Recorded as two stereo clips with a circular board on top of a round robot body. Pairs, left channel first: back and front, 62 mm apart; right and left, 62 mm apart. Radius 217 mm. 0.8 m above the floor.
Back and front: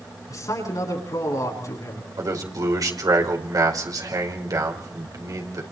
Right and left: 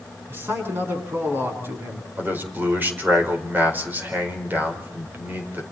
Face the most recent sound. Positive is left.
turn(degrees=30)